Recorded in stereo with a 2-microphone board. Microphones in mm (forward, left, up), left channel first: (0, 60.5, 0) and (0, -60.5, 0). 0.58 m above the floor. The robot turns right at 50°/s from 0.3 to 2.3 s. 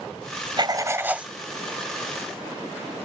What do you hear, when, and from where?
0.6 s writing: 40° right; by 1.3 s 5° right